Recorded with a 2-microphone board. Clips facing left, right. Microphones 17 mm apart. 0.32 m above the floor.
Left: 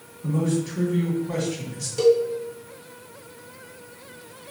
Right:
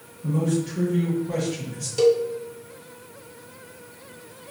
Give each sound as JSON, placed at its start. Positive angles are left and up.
{"t": 0.2, "sound": "a man speaking", "side_deg": 50, "distance_m": 2.5}
{"t": 2.0, "sound": "a cowbell", "side_deg": -15, "distance_m": 0.9}